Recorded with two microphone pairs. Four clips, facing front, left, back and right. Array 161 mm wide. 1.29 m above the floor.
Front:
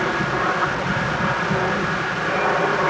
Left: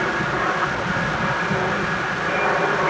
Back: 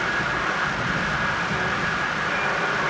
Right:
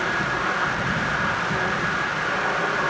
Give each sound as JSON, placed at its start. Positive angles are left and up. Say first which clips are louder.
{"t": 0.0, "sound": "an aircraft", "louder": "left 3 dB, front 4 dB", "azimuth_deg": 30}